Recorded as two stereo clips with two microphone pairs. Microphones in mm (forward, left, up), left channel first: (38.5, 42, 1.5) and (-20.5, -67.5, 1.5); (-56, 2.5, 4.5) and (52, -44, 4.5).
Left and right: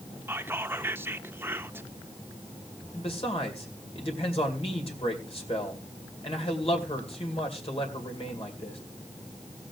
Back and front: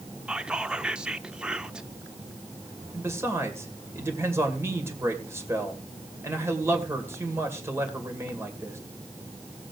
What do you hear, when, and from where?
0.3 s whispering: 90° right, 0.7 m
2.9 s a man speaking: 40° left, 2 m